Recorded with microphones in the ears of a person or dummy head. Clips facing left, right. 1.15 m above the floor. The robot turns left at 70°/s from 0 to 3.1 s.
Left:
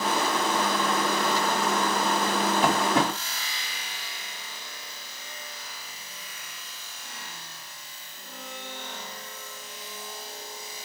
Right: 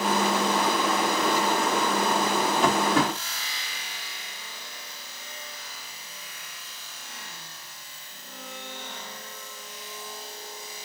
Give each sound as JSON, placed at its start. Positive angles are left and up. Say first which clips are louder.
{"t": 2.6, "sound": "tapping", "louder": "right 1 dB", "side_deg": 0, "distance_m": 3.5}